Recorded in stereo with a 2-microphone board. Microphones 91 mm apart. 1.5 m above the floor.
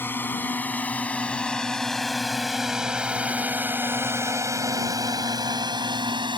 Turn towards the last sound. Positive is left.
turn(degrees=-60)  # may be behind; listen again after turning